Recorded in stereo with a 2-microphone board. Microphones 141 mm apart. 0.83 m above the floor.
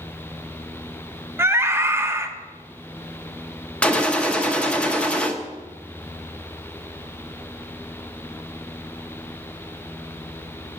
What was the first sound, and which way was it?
A scream, 20° right (ahead or behind).